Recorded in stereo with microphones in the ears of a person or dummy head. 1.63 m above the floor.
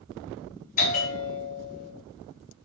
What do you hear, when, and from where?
0.8 s a bell: 40° left (ahead or behind), 0.6 m